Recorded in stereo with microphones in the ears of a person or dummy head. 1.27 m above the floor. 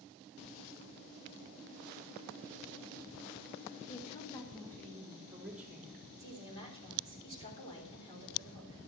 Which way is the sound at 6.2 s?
30° left (ahead or behind).